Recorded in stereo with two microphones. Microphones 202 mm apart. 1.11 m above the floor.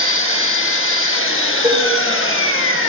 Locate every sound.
0.0 s an engine running: 75° left (ahead or behind), 1.3 m
1.6 s dishes clattering: 20° right (ahead or behind), 1.7 m